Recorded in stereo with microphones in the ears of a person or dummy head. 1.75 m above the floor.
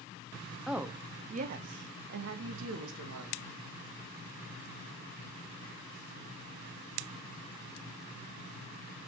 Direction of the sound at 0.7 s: Centre (ahead or behind).